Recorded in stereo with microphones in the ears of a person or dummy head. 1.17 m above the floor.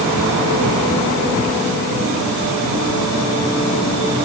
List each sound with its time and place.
Only background noise.